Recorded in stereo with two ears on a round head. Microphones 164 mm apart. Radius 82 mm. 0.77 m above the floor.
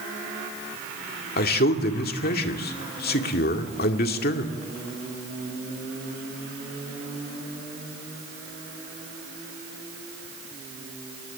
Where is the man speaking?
55° left (ahead or behind), 2 m.